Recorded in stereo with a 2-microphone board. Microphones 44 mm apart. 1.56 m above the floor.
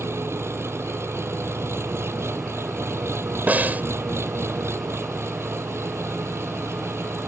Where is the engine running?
75° right (ahead or behind).